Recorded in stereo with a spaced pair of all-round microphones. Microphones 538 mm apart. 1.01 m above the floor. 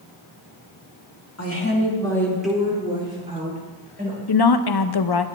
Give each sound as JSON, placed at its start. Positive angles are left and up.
{"t": 1.4, "sound": "a woman speaking", "side_deg": 30, "distance_m": 1.7}
{"t": 4.3, "sound": "a woman speaking", "side_deg": 45, "distance_m": 0.5}